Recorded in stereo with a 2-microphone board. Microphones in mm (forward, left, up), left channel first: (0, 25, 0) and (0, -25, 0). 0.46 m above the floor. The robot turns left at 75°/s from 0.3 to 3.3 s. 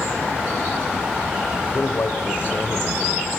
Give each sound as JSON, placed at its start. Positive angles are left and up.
{"t": 1.7, "sound": "a man speaking", "azimuth_deg": 115, "distance_m": 1.6}